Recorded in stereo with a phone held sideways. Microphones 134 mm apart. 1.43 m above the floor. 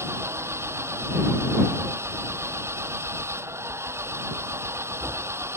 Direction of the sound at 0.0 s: 20° right (ahead or behind).